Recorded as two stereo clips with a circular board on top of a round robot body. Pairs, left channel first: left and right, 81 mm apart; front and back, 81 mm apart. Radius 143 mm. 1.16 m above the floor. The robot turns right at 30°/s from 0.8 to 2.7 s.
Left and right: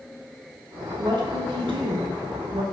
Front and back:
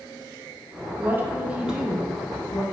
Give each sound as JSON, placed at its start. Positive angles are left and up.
{"t": 1.0, "sound": "a woman speaking", "azimuth_deg": -120, "distance_m": 1.9}